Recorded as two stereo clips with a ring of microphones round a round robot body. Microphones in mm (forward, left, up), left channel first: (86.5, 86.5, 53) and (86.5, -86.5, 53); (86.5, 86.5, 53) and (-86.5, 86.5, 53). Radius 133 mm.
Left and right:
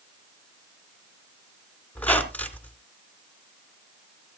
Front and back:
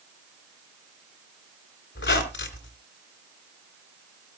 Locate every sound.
1.9 s a squeak: 10° left, 2.5 m